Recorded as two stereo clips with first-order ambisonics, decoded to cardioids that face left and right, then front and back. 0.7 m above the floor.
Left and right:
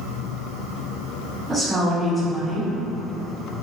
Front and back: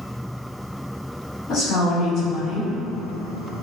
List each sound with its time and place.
1.5 s a woman speaking: 15° right, 1.5 m